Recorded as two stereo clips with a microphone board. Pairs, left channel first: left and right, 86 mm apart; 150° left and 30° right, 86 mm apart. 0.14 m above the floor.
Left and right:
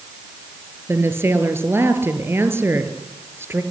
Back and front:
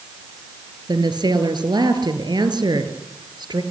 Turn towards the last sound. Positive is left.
turn(degrees=-35)